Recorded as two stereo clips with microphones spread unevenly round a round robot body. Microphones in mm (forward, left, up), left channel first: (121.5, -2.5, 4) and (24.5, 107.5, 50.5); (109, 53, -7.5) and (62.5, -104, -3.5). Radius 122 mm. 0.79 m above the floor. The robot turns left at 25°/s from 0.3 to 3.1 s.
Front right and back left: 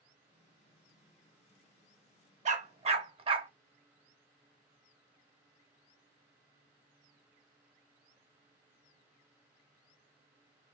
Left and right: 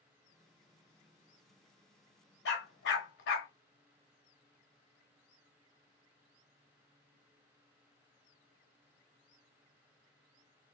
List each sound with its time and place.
2.5 s a dog barking: 100° left, 1.1 m; by 3.5 s 85° left, 1.1 m